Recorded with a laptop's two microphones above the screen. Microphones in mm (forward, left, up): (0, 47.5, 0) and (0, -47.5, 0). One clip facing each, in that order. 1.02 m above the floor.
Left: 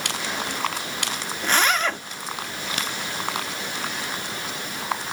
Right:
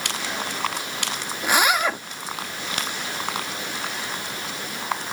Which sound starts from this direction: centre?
A zipper, at 1.4 s.